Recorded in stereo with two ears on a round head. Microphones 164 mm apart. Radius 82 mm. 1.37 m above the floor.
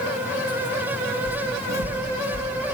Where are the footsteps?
35° right (ahead or behind), 1.9 m; by 2.5 s 20° left (ahead or behind), 1.6 m.